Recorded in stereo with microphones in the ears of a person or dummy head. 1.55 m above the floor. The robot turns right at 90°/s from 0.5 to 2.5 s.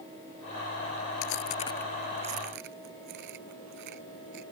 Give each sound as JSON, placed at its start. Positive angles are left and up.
{"t": 1.2, "sound": "chewing", "side_deg": 60}